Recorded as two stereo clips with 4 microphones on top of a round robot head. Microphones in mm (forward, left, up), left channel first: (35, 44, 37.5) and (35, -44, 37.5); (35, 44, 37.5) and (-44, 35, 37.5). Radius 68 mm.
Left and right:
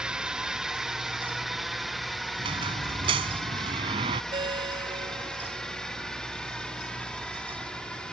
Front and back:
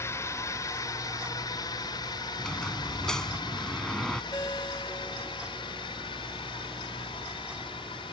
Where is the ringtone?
60° right.